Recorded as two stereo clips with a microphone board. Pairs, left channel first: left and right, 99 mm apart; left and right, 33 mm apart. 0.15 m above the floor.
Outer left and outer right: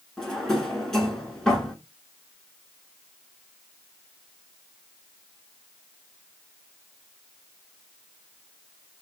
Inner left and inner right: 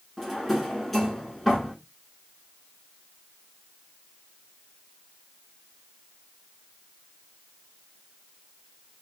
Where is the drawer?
5° left (ahead or behind), 0.8 m.